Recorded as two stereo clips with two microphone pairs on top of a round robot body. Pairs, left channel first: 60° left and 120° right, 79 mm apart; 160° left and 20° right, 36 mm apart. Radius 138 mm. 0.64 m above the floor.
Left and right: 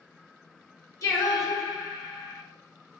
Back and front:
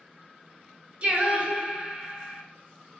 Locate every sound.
1.0 s singing: 20° left, 0.9 m